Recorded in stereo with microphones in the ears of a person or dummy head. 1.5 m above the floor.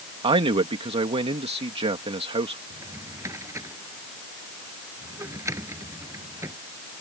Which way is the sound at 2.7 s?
20° right (ahead or behind).